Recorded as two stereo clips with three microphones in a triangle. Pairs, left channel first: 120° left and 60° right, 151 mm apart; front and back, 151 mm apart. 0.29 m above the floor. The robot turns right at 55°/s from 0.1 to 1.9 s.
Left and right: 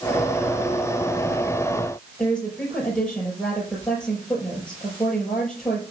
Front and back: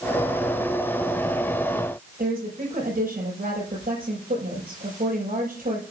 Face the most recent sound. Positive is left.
turn(degrees=-155)